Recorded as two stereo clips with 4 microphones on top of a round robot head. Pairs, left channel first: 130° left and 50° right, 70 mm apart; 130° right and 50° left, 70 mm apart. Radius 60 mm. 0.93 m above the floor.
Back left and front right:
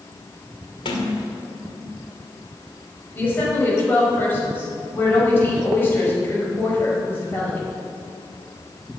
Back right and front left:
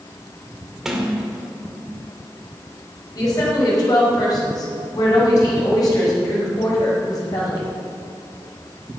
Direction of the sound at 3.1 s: 170° right.